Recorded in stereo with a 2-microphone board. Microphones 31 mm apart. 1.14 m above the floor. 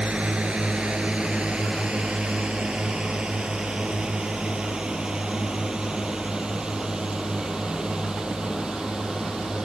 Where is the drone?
40° right (ahead or behind); by 9.7 s 25° right (ahead or behind).